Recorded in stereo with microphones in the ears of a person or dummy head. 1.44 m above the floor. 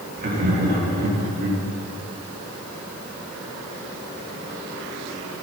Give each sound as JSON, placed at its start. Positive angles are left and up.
{"t": 0.2, "sound": "laughter", "side_deg": -50, "distance_m": 3.0}